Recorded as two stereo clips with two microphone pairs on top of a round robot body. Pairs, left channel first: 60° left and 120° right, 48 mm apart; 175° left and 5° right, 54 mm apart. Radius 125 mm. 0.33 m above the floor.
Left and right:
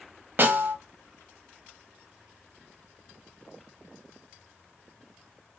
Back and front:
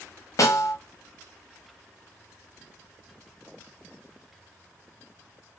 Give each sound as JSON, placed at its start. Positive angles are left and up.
{"t": 0.4, "sound": "a snare drum", "azimuth_deg": -170, "distance_m": 1.0}